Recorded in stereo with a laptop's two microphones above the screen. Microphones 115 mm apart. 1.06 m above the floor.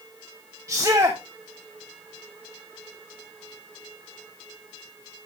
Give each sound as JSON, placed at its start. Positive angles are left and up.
{"t": 0.7, "sound": "a shout", "side_deg": -25, "distance_m": 1.0}